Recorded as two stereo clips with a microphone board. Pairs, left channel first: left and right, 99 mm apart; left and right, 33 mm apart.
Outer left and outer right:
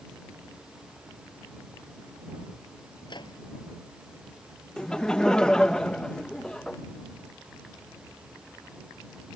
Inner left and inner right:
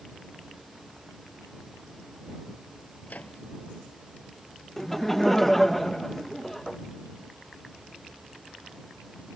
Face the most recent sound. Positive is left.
turn(degrees=10)  # may be behind; listen again after turning